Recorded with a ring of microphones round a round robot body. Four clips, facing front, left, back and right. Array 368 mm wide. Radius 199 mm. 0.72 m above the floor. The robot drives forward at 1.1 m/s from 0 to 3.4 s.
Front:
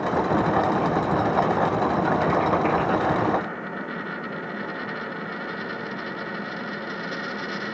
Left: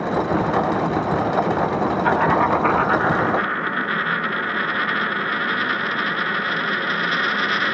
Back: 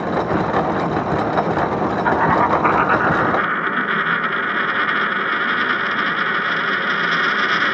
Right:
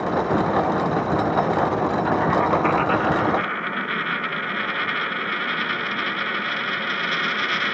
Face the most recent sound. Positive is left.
turn(degrees=170)